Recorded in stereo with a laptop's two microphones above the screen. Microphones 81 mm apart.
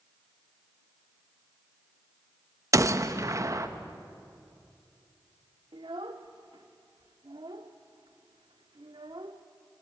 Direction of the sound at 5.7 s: 80° right.